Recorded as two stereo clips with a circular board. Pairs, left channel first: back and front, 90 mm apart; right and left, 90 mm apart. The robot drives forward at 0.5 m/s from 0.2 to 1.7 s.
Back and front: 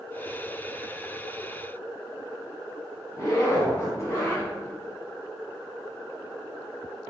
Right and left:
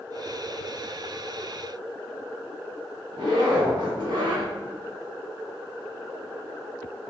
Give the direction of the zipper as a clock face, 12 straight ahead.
8 o'clock.